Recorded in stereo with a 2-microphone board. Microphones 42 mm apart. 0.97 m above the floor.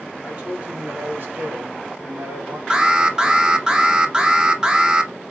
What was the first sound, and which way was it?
A man speaking, 25° right (ahead or behind).